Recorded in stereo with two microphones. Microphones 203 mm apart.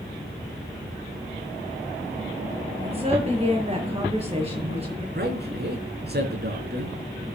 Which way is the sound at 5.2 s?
55° right (ahead or behind).